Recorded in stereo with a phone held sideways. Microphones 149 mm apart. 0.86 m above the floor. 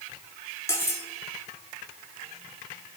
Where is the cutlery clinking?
20° left (ahead or behind), 1.2 m.